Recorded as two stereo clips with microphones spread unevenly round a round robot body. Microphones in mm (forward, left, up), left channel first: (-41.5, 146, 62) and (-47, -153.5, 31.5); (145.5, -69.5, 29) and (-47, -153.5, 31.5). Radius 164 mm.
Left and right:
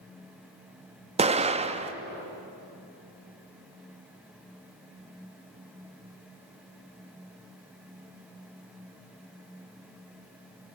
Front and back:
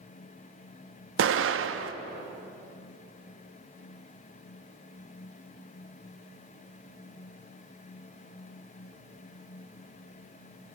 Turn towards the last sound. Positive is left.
turn(degrees=-155)